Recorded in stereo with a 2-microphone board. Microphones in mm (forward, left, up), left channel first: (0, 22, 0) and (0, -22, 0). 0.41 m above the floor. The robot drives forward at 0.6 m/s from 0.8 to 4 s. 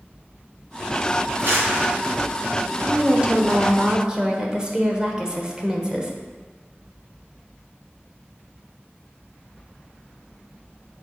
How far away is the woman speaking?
About 0.9 m.